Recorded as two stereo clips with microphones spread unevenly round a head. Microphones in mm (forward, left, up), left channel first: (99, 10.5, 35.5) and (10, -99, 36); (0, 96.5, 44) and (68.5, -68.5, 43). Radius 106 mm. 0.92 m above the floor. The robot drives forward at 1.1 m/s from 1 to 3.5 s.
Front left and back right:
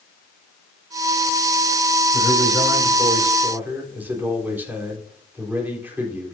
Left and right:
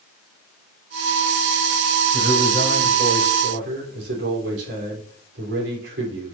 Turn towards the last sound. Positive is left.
turn(degrees=-50)